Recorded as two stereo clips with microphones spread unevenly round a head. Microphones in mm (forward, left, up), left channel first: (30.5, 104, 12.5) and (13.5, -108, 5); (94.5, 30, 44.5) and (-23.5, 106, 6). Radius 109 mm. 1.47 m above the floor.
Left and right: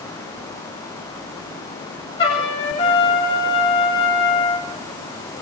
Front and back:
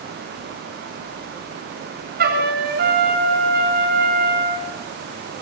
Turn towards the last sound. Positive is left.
turn(degrees=155)